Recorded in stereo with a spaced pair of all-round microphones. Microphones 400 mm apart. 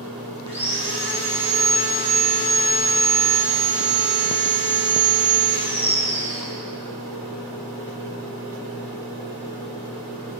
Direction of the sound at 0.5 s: 15° left (ahead or behind).